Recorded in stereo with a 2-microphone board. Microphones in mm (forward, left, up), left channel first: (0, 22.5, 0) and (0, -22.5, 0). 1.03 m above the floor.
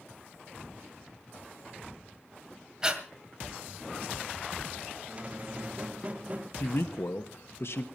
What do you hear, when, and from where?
2.8 s breathing: 15° right (ahead or behind), 1.9 m
5.1 s a squeak: 30° right (ahead or behind), 0.6 m
6.6 s a man speaking: 65° left (ahead or behind), 1.2 m